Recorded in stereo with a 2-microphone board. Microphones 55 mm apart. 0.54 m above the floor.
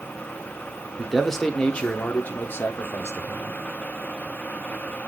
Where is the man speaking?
5° right (ahead or behind), 1.3 m; by 3.6 s 55° left (ahead or behind), 1.7 m.